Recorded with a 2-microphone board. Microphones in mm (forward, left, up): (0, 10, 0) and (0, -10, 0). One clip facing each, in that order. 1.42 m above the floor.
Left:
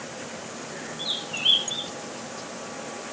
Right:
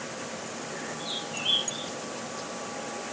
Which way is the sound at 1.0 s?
45° left (ahead or behind).